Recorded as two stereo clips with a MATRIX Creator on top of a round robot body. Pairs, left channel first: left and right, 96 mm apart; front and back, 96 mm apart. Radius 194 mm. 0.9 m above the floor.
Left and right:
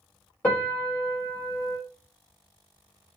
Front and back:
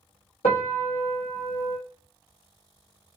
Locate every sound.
0.4 s a piano: 15° left, 0.8 m